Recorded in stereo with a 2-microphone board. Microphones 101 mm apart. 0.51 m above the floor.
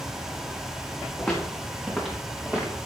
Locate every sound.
1.2 s footsteps: 5° left (ahead or behind), 3 m; by 2.7 s 10° right (ahead or behind), 4 m